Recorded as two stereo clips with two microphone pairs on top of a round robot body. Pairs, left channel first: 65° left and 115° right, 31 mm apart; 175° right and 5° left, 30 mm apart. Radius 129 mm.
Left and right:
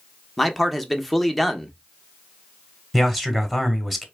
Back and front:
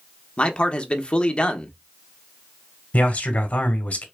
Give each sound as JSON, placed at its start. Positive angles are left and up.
{"t": 0.4, "sound": "a man speaking", "azimuth_deg": 155, "distance_m": 1.1}
{"t": 2.9, "sound": "a man speaking", "azimuth_deg": 160, "distance_m": 1.6}